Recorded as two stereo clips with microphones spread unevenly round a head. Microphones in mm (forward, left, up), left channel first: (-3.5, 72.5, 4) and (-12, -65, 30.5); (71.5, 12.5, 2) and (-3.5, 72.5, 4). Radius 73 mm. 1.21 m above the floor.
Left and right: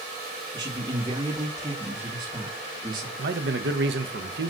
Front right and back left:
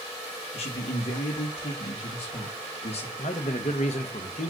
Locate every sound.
0.5 s a man speaking: 25° right, 2 m
3.2 s a man speaking: 80° right, 1.3 m